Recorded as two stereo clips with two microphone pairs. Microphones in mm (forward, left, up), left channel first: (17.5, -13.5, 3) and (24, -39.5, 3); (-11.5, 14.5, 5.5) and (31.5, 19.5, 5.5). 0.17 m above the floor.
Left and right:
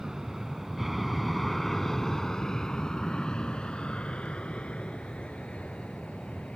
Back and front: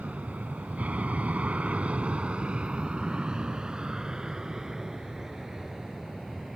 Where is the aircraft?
20° right; by 6.6 s 90° left.